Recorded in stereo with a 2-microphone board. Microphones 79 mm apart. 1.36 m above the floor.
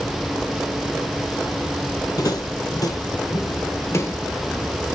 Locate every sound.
2.2 s footsteps: 45° left (ahead or behind), 2.5 m; by 4.8 s 15° left (ahead or behind), 1.6 m